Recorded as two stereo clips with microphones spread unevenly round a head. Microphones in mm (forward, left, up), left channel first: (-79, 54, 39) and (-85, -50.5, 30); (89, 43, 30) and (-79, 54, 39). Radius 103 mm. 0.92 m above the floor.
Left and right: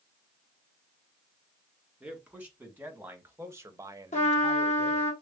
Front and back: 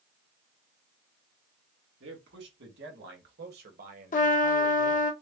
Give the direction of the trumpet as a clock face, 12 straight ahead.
11 o'clock.